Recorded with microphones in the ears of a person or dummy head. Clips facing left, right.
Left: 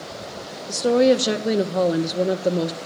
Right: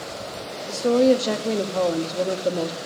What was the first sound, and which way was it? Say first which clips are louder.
A woman speaking: left 1 dB; 15° left (ahead or behind).